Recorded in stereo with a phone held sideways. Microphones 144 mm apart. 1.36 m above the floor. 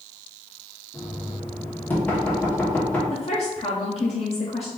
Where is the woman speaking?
45° left (ahead or behind), 0.8 m.